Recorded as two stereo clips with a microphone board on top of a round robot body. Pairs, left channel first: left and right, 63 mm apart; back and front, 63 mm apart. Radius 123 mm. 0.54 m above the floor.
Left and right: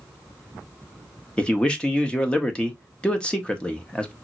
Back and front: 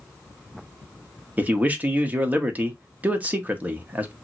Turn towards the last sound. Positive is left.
turn(degrees=35)